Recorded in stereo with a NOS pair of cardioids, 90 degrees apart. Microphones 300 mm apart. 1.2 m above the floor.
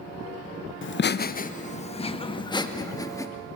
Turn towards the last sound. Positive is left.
turn(degrees=10)